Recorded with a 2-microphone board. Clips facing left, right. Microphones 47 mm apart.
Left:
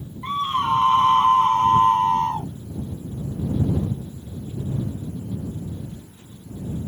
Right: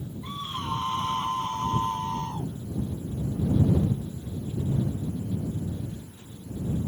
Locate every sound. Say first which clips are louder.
0.2 s a scream: left 12 dB; 55° left (ahead or behind)